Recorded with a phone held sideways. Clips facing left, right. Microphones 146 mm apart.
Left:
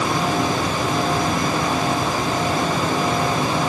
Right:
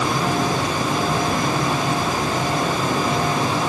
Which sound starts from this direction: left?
A fan, at 0.0 s.